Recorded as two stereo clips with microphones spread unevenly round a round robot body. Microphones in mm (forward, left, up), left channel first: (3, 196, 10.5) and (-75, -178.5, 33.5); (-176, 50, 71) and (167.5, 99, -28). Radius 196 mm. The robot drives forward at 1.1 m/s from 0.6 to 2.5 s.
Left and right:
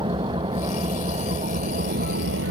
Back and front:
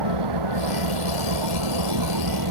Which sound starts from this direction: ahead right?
An engine running, at 0.0 s.